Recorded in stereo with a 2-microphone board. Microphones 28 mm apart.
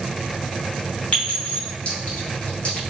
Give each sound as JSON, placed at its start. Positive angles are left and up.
{"t": 1.1, "sound": "a clink", "side_deg": 50, "distance_m": 3.0}